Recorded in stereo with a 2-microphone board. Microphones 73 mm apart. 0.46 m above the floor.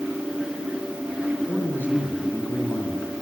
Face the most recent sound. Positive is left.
turn(degrees=25)  # may be behind; listen again after turning